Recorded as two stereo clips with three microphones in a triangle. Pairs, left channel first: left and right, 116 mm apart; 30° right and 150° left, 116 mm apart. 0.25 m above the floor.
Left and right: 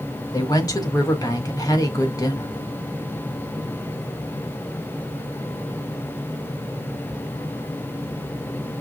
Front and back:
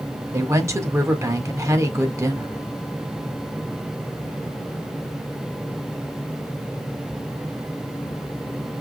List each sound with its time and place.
0.3 s a woman speaking: 110° left, 1.4 m